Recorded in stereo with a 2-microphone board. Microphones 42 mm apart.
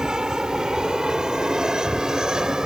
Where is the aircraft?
15° right (ahead or behind).